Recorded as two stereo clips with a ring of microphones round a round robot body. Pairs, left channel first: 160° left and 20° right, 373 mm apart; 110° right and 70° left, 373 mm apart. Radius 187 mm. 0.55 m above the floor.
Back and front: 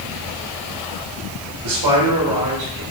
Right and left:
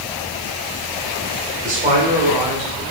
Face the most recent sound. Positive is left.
turn(degrees=0)